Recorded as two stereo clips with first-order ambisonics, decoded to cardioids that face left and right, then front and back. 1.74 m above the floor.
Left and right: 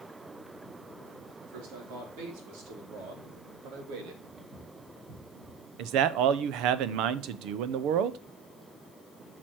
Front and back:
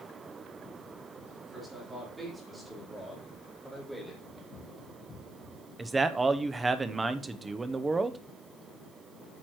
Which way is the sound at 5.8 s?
105° right.